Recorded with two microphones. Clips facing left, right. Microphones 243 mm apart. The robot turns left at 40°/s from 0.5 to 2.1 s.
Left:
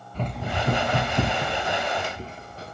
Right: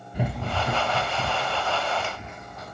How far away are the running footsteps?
About 0.7 m.